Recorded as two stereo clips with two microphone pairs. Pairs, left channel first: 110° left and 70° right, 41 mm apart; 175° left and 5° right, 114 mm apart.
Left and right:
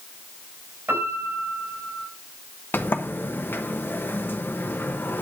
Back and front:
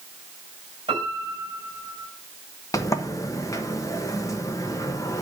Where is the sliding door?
115° left, 1.0 m.